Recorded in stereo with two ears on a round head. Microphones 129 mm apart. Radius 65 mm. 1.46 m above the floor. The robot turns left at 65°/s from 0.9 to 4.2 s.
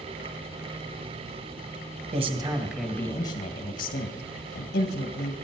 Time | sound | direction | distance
2.1 | a man speaking | 135° right | 1.6 m